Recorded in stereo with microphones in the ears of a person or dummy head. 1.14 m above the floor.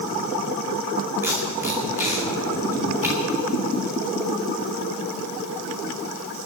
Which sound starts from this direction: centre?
Tape being pulled, at 1.2 s.